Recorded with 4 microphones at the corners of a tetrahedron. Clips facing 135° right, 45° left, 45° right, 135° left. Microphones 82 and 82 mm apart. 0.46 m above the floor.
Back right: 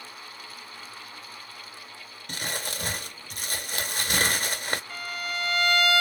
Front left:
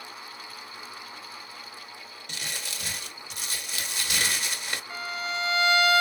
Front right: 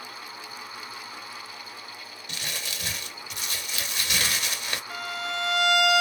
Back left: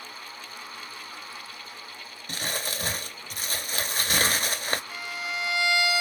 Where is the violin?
30° right, 1.4 m.